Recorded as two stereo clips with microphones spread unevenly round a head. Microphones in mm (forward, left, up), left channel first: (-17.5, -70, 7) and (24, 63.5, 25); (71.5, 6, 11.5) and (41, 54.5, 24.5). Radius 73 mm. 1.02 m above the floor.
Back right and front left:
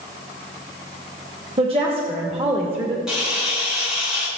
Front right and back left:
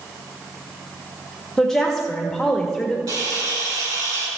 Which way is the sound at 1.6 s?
20° left.